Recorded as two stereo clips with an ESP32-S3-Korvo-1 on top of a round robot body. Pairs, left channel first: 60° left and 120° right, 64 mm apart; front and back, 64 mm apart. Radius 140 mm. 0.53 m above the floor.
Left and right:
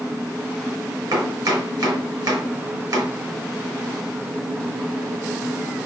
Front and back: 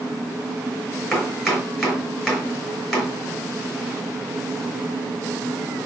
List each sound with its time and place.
1.1 s chopping: 90° right, 6.5 m